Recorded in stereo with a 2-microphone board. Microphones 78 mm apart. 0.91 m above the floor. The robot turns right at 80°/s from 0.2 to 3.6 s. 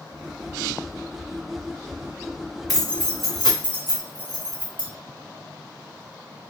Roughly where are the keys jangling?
Centre.